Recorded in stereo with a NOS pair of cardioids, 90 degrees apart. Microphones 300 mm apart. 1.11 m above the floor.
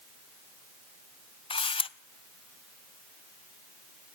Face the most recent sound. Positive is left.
turn(degrees=20)